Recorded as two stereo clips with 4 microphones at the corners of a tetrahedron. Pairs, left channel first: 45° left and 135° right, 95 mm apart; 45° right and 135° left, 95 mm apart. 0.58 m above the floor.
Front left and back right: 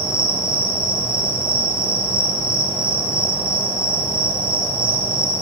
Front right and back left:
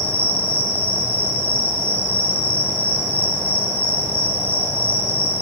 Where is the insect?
160° right, 3 m.